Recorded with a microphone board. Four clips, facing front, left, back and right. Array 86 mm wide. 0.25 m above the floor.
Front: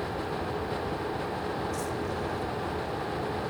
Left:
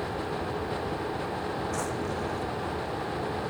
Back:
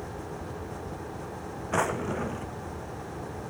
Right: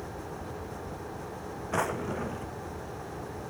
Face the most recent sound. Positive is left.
turn(degrees=-155)